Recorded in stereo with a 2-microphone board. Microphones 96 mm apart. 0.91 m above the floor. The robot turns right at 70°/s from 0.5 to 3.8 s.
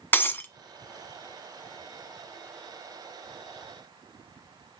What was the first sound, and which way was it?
Breaking glass, 20° left (ahead or behind).